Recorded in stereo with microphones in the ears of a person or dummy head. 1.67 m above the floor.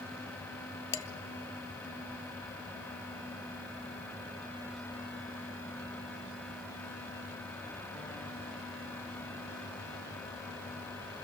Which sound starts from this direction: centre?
Dishes clattering, at 0.9 s.